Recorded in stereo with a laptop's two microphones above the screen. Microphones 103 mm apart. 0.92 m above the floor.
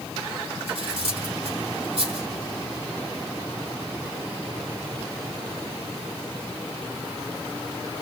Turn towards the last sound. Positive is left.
turn(degrees=-65)  # may be behind; listen again after turning